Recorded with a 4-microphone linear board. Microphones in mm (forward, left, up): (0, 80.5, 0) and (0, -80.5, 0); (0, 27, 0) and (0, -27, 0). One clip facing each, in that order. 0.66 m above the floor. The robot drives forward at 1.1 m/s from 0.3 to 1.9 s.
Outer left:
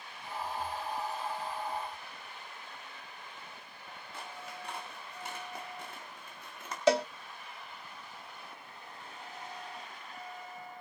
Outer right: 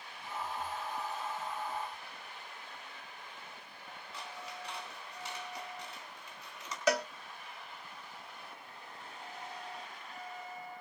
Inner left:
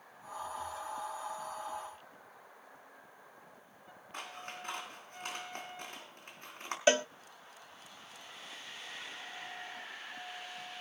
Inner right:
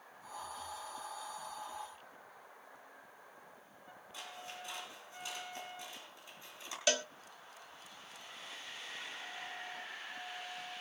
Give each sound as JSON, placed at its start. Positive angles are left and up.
{"t": 4.1, "sound": "scissors", "side_deg": 50, "distance_m": 3.5}
{"t": 6.9, "sound": "a cowbell", "side_deg": 25, "distance_m": 0.7}